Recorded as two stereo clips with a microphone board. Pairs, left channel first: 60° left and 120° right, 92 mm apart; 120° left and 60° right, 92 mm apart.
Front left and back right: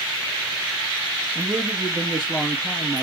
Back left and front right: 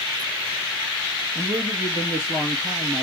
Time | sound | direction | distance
1.4 | a man speaking | 35° right | 1.5 m